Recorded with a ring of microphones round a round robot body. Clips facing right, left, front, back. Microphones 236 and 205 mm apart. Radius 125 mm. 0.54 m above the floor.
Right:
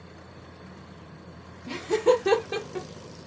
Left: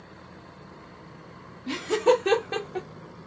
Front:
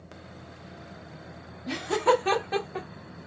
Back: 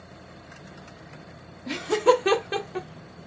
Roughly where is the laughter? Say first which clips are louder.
Even, back 4 dB; behind left.